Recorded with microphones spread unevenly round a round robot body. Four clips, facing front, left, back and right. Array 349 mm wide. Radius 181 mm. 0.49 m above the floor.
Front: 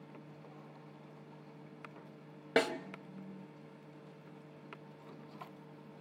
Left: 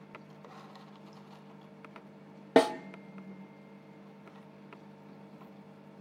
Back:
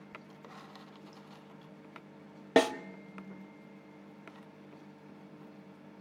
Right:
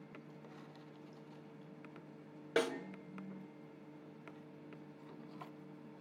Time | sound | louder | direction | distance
2.6 | a snare drum | left 11 dB, back 6 dB | 110° left | 0.9 m